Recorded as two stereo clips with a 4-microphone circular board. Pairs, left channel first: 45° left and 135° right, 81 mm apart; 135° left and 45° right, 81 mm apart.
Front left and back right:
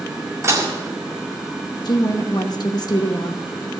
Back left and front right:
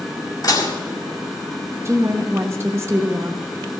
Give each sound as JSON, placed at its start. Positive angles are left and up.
{"t": 0.4, "sound": "dishes clattering", "azimuth_deg": 175, "distance_m": 2.0}
{"t": 1.9, "sound": "a woman speaking", "azimuth_deg": 10, "distance_m": 1.0}